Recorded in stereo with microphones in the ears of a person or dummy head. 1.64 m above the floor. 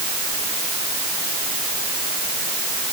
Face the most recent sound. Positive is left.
No sound to turn to.